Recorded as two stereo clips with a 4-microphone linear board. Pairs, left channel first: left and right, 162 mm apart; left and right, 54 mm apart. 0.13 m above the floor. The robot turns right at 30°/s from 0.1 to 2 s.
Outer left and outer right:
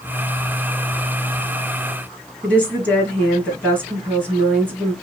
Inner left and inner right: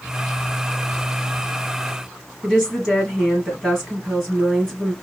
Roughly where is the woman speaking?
Centre.